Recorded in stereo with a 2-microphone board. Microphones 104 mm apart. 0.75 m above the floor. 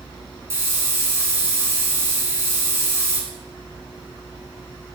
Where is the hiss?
25° right (ahead or behind), 4.5 m.